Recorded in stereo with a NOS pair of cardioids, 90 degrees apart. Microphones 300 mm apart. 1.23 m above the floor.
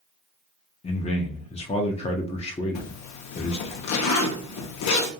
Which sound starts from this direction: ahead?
A man speaking, at 0.8 s.